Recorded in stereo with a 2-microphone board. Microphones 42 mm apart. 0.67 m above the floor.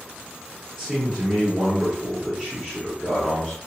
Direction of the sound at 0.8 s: 5° right (ahead or behind).